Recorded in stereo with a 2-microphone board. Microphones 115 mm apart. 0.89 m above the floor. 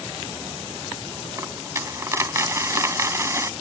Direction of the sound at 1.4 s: 25° right (ahead or behind).